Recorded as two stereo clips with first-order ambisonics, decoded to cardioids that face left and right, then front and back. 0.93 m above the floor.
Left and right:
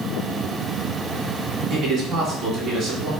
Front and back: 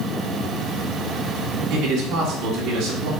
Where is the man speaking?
145° right, 3 m.